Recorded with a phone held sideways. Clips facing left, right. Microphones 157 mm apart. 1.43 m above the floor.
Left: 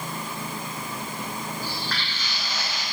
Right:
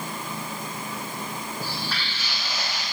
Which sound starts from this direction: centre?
Footsteps, at 1.6 s.